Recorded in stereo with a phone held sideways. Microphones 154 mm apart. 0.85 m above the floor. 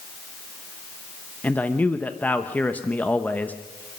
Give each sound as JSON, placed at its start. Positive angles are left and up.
{"t": 1.4, "sound": "a man speaking", "side_deg": 10, "distance_m": 0.9}